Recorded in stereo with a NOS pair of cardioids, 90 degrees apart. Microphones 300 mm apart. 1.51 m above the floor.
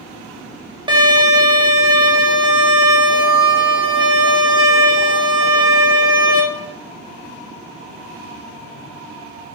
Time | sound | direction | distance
0.9 | a violin | 15° right | 1.1 m